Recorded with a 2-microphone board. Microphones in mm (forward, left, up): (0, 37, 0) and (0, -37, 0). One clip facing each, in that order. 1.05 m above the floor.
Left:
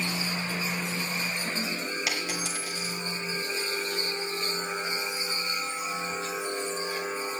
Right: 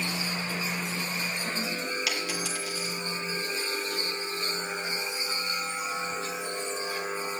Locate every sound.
2.1 s a dropped coin: 25° left (ahead or behind), 5.5 m